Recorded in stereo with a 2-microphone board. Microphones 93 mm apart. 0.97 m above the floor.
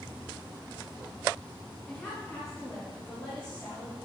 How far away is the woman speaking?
About 1.2 m.